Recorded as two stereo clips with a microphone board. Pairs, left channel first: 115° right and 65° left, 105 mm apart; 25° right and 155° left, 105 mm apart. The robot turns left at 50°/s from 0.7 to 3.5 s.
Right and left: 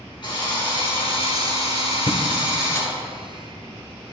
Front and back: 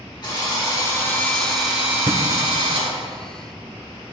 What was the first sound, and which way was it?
A drill, 70° right.